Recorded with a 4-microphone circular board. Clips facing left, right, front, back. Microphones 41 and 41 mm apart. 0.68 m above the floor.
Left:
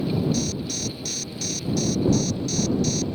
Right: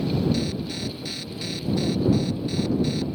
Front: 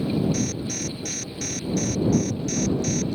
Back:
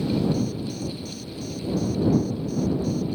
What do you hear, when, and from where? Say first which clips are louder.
0.3 s an alarm: even, even; 20° right